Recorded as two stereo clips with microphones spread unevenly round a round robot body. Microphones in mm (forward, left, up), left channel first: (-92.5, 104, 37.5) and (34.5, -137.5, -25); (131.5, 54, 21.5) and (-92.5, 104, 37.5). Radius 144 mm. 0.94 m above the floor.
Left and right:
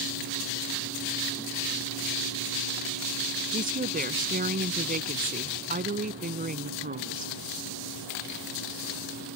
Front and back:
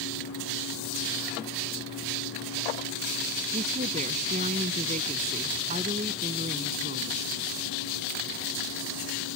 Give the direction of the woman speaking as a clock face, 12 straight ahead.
4 o'clock.